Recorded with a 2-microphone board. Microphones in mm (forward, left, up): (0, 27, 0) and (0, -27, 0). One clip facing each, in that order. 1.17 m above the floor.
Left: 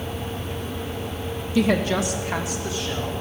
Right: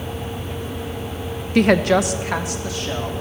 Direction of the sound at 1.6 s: 55° right (ahead or behind).